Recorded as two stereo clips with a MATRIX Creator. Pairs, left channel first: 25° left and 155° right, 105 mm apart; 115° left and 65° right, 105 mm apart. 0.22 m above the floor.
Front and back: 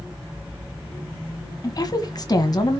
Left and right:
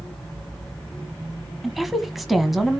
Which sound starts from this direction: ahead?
A woman speaking, at 1.6 s.